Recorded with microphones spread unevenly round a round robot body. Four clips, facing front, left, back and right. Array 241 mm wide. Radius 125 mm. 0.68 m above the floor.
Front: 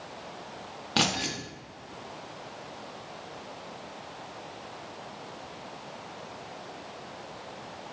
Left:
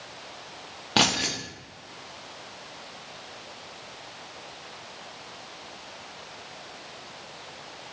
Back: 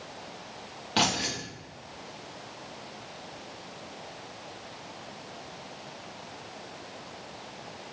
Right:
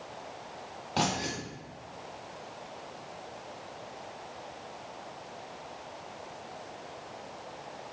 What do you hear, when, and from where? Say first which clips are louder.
1.0 s keys jangling: left 4 dB, back 1 dB; 75° left, 0.8 m